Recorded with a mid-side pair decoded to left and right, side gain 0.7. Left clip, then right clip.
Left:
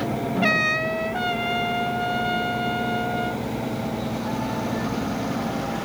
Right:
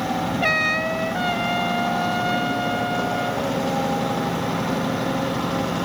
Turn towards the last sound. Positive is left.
turn(degrees=-5)